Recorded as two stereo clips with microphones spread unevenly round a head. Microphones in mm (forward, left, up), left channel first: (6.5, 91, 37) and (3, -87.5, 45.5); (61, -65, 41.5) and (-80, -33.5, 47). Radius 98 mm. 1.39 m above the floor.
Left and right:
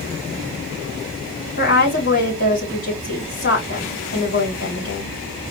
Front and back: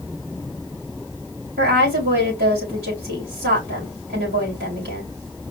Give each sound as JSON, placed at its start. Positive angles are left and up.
{"t": 1.6, "sound": "a woman speaking", "azimuth_deg": 135, "distance_m": 3.0}